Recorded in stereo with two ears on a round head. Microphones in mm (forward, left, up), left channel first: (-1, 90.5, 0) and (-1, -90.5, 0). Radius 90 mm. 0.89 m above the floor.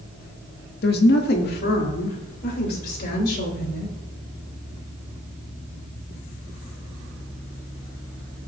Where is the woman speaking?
50° left (ahead or behind), 1.3 m.